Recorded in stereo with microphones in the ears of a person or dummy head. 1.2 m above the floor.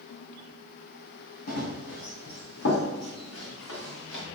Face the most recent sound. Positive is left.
turn(degrees=75)  # may be behind; listen again after turning